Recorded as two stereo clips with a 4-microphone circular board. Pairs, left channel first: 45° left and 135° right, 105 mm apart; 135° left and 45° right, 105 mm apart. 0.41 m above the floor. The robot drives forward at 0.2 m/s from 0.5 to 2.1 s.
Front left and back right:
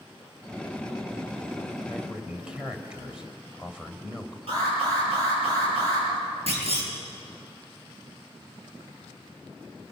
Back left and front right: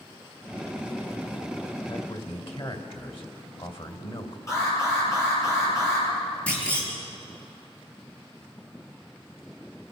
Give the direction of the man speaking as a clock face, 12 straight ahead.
7 o'clock.